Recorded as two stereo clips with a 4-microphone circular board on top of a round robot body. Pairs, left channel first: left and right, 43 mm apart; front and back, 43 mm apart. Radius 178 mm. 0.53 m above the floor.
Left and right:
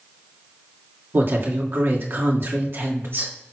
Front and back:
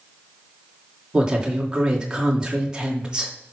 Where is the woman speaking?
110° right, 2.5 m.